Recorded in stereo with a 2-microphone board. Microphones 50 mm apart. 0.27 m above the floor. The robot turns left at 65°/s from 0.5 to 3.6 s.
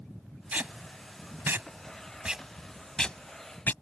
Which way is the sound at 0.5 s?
30° right (ahead or behind).